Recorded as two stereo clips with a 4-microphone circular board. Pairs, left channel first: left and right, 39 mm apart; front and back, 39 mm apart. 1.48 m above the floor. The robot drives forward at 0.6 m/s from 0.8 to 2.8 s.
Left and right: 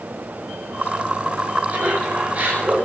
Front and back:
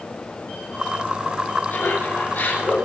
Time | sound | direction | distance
1.7 | laughter | 40° right | 10 m